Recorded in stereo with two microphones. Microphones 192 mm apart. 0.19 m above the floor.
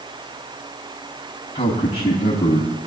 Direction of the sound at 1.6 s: 30° left (ahead or behind).